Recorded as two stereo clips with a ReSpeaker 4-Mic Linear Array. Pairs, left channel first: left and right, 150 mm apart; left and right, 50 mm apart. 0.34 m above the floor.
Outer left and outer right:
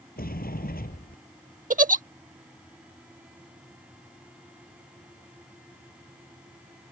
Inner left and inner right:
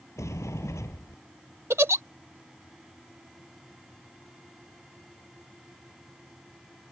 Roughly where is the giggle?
Right.